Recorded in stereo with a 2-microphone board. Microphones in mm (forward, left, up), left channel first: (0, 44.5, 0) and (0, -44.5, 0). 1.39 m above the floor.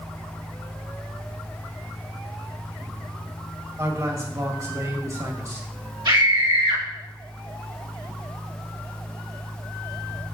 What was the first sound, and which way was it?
A man speaking, 35° right (ahead or behind).